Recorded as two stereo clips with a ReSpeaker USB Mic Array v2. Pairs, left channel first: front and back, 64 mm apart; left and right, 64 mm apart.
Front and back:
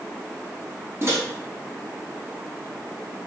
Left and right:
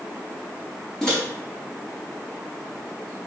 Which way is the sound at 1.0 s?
165° left.